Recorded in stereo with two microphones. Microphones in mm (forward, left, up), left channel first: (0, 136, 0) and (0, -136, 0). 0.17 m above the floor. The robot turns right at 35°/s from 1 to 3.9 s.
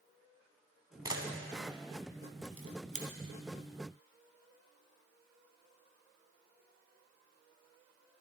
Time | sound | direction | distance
1.1 | a camera shutter | 15° right (ahead or behind) | 1.1 m